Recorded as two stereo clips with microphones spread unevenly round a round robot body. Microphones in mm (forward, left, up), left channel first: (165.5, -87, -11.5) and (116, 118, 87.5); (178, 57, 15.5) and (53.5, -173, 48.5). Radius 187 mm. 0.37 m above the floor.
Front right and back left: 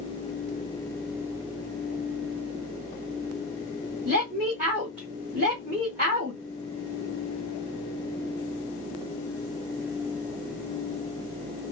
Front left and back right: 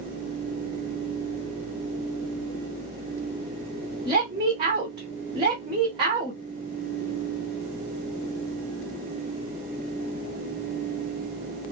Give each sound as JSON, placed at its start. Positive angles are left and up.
{"t": 4.0, "sound": "a woman speaking", "azimuth_deg": 175, "distance_m": 1.2}